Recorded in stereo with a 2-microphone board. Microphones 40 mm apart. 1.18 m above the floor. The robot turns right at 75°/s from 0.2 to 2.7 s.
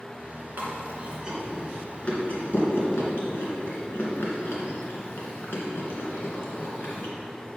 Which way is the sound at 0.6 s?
60° right (ahead or behind).